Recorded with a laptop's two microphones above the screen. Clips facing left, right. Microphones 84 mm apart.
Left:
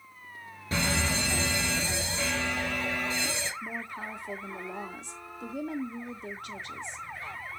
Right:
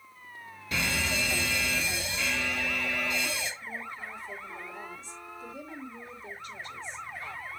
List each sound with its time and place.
0.7 s a fire alarm: 30° left (ahead or behind), 1.9 m
3.6 s a woman speaking: 65° left (ahead or behind), 2 m